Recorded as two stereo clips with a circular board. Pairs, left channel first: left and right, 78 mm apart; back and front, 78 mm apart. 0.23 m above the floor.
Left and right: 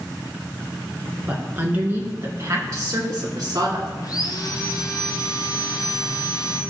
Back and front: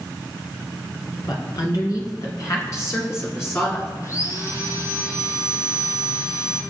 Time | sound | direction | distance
1.3 | a woman speaking | 155° right | 3 m
4.0 | sawing | 130° left | 2.5 m